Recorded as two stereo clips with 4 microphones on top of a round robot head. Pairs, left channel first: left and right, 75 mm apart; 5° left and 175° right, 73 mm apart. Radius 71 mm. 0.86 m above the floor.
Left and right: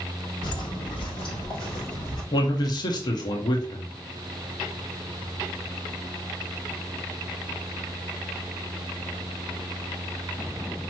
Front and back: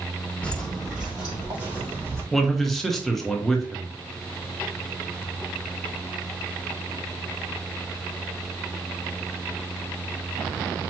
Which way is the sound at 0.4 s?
75° left.